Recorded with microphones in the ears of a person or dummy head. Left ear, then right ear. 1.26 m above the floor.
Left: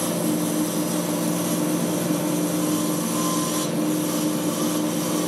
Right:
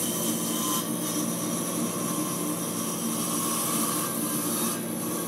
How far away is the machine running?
About 0.8 m.